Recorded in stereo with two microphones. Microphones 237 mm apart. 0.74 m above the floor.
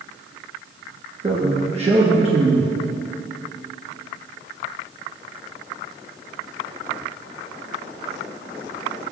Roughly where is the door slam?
No door slam in this recording.